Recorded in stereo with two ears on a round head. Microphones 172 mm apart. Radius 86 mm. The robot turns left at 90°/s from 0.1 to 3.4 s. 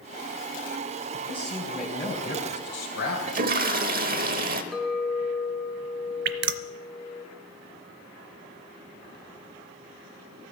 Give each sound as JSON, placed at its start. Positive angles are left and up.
{"t": 1.1, "sound": "a man speaking", "azimuth_deg": -120, "distance_m": 3.0}
{"t": 3.3, "sound": "a toilet flushing", "side_deg": -40, "distance_m": 1.1}
{"t": 4.7, "sound": "a clink", "side_deg": 0, "distance_m": 1.1}
{"t": 6.2, "sound": "dripping", "side_deg": -60, "distance_m": 0.7}